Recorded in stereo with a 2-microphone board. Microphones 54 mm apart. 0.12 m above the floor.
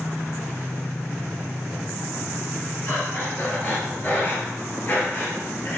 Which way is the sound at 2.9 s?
35° left (ahead or behind).